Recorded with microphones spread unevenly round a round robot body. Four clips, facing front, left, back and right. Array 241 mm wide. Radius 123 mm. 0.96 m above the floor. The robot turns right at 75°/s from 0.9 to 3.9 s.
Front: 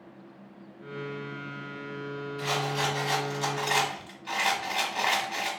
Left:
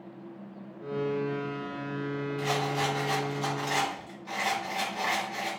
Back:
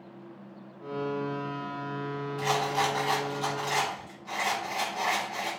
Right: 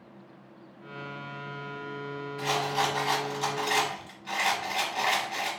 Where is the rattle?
160° right, 1.1 m; by 5.5 s 45° right, 1.1 m.